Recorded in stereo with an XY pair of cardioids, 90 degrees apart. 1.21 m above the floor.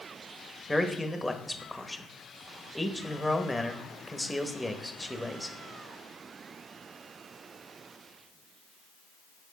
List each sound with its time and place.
0.7 s a man speaking: 5° left, 1.2 m